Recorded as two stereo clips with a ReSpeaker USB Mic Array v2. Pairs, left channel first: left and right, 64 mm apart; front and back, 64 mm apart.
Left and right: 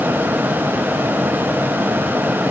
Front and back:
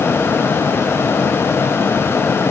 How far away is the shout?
I don't hear a shout.